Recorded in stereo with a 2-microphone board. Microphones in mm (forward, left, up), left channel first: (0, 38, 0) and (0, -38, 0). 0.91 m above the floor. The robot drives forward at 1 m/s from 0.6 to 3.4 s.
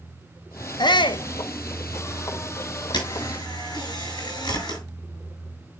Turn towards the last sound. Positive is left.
turn(degrees=65)  # may be behind; listen again after turning